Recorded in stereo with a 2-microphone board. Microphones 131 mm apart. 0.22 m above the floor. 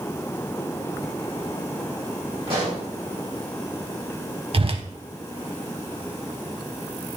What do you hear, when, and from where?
2.5 s a pop: 45° right (ahead or behind), 4 m
4.5 s a whoosh: 45° right (ahead or behind), 0.6 m